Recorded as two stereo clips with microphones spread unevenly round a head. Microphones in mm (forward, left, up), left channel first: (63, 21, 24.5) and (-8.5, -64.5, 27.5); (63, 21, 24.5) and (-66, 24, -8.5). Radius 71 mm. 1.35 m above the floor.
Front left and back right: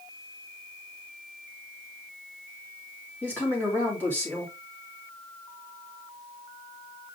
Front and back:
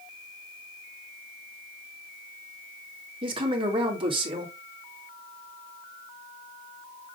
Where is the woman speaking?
130° left, 2.5 m.